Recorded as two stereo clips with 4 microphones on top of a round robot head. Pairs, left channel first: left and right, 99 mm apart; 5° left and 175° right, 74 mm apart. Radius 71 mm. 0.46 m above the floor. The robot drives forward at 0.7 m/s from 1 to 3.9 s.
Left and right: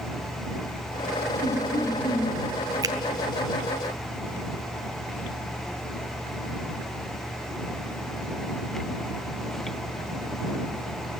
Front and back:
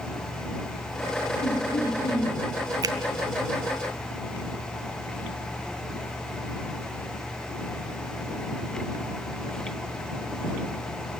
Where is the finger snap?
140° right, 1.4 m; by 3.0 s 145° right, 1.5 m.